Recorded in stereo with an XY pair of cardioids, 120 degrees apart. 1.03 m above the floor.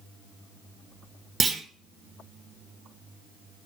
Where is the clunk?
30° right, 0.7 m.